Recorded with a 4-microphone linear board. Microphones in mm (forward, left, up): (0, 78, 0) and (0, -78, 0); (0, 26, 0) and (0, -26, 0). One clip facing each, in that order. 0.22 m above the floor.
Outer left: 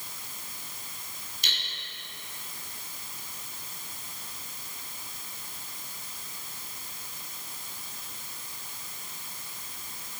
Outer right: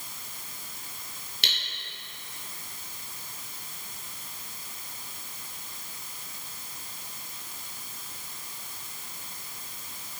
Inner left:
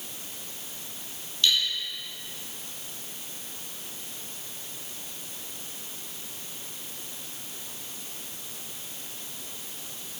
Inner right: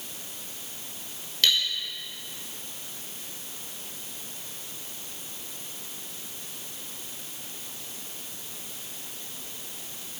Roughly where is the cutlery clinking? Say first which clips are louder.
Outer right 3 dB, inner right 1 dB; right.